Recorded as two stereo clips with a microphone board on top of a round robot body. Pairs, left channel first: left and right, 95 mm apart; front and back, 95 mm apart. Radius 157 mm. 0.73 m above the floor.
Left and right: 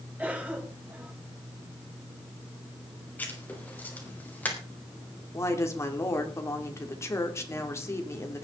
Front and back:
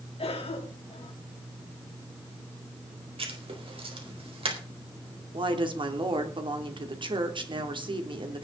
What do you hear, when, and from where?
0.2 s a cough: 15° right, 5 m
3.2 s writing: 165° left, 4 m
5.3 s a woman speaking: 150° left, 3 m